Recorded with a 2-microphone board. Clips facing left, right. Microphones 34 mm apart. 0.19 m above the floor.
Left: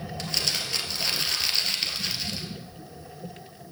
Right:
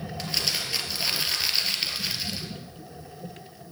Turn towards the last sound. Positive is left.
turn(degrees=-5)  # may be behind; listen again after turning